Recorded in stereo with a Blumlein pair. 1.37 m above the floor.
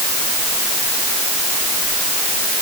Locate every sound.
Only background noise.